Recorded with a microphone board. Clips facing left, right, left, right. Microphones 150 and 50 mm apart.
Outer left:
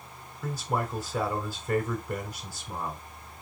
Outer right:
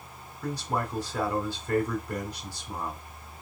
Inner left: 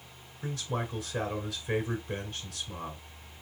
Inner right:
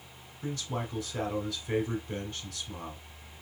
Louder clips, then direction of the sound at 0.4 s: Even, inner left 1 dB; 5° left (ahead or behind).